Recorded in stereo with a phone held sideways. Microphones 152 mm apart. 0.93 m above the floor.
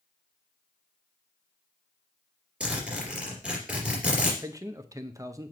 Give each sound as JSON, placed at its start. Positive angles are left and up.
{"t": 2.6, "sound": "a zipper", "side_deg": -10, "distance_m": 3.0}
{"t": 4.4, "sound": "a man speaking", "side_deg": -20, "distance_m": 0.6}